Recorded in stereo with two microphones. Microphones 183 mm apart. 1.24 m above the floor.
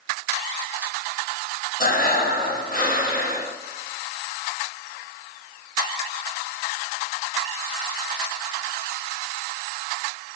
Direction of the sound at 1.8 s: 55° left (ahead or behind).